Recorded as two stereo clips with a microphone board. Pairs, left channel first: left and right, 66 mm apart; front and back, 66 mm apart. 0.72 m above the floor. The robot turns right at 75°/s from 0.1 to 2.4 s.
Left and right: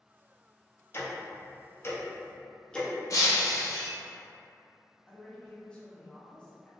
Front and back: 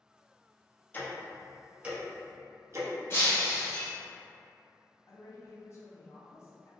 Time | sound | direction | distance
0.9 | ticking | 50° left | 0.5 m
3.1 | breaking glass | 50° left | 0.7 m
5.1 | a woman speaking | 15° left | 0.6 m